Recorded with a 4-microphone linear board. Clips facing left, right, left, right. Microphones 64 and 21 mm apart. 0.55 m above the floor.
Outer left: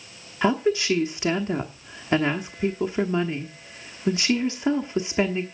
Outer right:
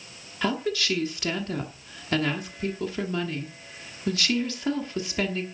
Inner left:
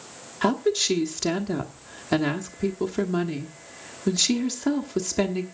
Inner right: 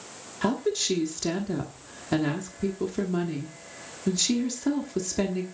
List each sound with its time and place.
0.4 s a woman speaking: 20° left (ahead or behind), 1.1 m